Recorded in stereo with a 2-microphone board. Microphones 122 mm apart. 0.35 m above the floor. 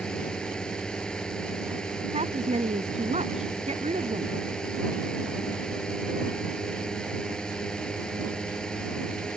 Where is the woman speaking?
65° right (ahead or behind).